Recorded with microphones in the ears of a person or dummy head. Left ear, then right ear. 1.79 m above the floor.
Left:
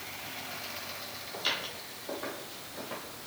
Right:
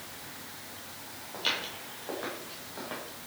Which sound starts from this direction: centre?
Footsteps, at 1.3 s.